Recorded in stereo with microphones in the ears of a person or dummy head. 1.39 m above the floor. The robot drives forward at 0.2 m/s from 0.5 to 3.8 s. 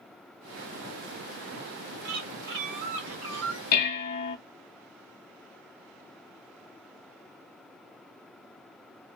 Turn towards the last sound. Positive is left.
turn(degrees=50)  # may be behind; listen again after turning